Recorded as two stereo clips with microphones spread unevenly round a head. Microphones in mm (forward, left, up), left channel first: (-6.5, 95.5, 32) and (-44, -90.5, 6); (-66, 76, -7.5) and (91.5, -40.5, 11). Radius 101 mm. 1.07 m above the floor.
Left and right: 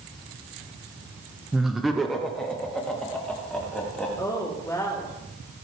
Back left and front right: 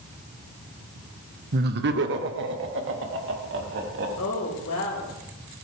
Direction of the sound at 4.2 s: 155° left.